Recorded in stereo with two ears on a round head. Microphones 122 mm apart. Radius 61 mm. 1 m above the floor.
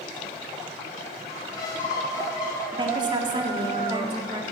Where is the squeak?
30° left (ahead or behind), 6 m.